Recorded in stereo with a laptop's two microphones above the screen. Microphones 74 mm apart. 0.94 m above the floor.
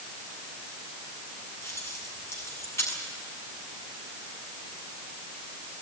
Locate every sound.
1.6 s keys jangling: 40° left (ahead or behind), 6.5 m